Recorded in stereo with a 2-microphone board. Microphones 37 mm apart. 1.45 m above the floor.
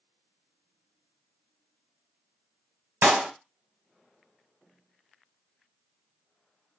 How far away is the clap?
About 0.9 m.